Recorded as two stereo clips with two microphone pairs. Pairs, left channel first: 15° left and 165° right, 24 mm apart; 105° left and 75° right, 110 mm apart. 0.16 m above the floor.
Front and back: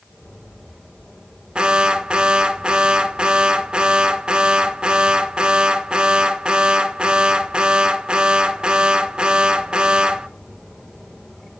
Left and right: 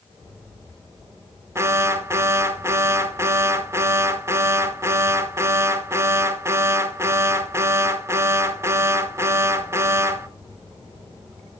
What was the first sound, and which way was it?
An alarm, 135° right.